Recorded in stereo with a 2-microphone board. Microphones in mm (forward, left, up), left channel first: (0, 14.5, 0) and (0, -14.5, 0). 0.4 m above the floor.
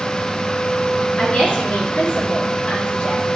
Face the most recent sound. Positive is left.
turn(degrees=50)  # may be behind; listen again after turning